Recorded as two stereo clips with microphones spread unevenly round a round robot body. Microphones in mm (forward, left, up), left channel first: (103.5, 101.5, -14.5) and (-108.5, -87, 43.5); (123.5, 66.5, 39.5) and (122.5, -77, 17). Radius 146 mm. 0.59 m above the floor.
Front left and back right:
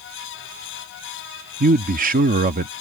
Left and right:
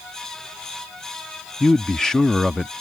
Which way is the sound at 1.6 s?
165° right.